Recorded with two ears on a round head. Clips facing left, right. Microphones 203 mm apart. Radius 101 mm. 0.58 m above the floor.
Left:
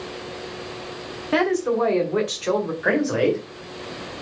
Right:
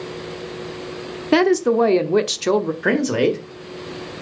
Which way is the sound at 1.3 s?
60° right (ahead or behind).